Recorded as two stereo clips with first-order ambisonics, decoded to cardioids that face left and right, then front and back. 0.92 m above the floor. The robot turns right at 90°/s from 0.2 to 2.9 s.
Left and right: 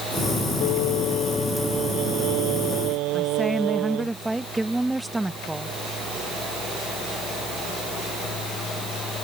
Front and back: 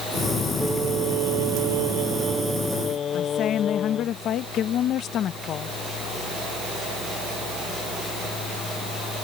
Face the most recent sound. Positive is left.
turn(degrees=-10)